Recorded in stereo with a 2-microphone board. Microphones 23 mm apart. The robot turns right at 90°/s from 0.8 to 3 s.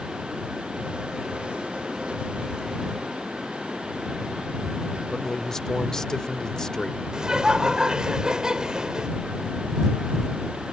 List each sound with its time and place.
5.1 s a man speaking: 25° left (ahead or behind)
7.1 s laughter: 35° right (ahead or behind)